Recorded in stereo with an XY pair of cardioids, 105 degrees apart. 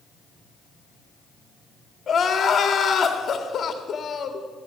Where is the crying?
45° left, 1.9 m.